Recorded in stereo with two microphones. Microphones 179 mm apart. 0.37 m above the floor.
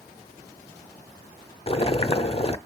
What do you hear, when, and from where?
1.7 s boiling: 35° left (ahead or behind), 0.6 m